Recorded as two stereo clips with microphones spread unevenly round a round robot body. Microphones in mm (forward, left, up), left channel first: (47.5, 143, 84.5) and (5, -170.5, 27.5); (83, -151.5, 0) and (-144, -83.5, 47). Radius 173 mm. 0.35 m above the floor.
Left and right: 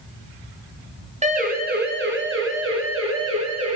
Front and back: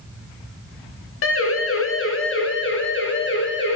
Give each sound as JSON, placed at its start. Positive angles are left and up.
{"t": 1.2, "sound": "a siren", "azimuth_deg": -30, "distance_m": 2.5}